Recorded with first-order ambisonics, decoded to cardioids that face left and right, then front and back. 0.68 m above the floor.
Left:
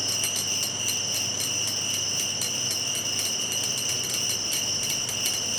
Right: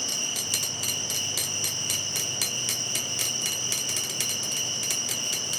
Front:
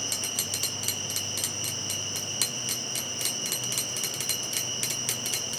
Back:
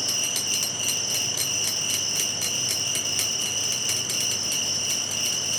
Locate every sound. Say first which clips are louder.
0.0 s an insect: left 2 dB, back 5 dB; 155° left, 7.5 m